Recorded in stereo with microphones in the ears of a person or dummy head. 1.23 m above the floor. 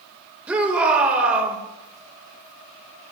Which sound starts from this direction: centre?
A shout, at 0.5 s.